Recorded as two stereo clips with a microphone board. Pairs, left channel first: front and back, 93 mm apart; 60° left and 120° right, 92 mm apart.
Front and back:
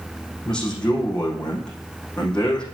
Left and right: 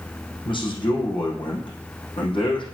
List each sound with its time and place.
0.5 s a man speaking: 80° left, 4.5 m